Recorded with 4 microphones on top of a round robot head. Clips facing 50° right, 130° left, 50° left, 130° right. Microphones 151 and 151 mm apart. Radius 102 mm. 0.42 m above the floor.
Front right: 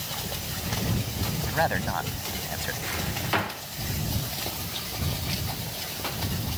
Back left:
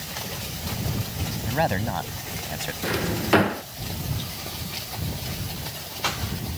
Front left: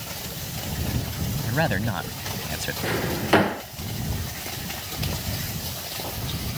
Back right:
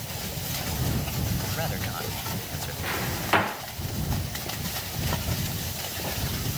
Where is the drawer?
95° left.